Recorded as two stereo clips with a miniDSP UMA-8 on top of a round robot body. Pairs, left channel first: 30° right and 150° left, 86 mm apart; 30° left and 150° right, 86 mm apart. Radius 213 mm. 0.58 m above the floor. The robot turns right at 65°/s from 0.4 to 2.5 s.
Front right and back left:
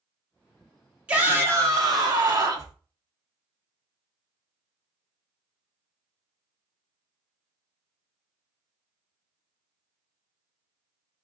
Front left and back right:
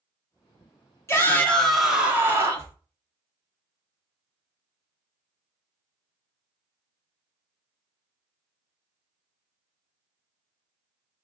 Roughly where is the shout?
Left.